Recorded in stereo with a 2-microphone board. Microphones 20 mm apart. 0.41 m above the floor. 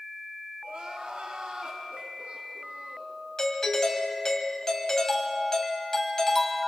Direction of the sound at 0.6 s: 65° right (ahead or behind).